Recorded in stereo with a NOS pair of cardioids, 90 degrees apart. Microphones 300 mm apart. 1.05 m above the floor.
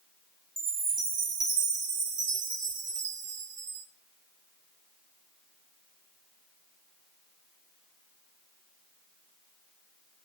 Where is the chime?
40° right, 4 m.